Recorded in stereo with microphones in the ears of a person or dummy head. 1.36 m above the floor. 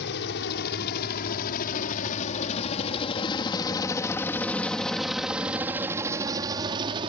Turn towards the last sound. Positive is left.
turn(degrees=-30)  # may be behind; listen again after turning